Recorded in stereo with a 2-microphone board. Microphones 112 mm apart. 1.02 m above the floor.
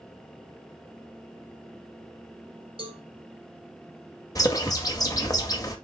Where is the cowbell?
50° right (ahead or behind), 1.2 m.